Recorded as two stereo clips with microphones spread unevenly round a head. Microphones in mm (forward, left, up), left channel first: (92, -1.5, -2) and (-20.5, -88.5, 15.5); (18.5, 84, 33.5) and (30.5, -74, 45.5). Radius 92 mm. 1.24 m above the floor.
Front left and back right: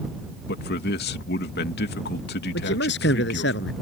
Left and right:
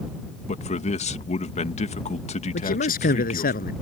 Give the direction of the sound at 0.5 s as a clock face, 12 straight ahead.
10 o'clock.